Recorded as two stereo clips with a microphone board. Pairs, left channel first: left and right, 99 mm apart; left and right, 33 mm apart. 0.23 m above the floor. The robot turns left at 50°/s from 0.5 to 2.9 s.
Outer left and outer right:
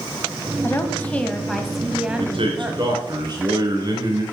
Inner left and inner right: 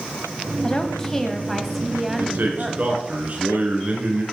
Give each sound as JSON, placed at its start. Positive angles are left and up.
{"t": 0.6, "sound": "a woman speaking", "side_deg": 25, "distance_m": 1.1}
{"t": 2.2, "sound": "a man speaking", "azimuth_deg": -95, "distance_m": 3.5}